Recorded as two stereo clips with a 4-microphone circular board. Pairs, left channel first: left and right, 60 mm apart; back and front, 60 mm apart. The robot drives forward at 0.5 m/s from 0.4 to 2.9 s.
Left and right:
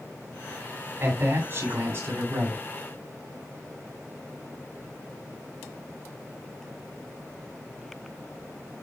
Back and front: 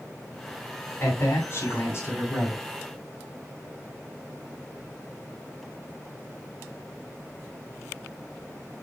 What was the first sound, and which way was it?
A man speaking, 130° right.